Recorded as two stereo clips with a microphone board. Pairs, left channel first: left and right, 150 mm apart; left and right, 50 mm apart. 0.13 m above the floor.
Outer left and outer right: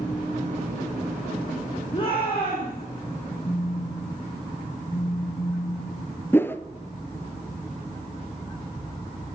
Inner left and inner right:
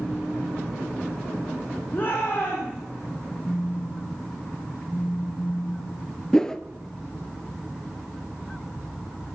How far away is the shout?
About 6 m.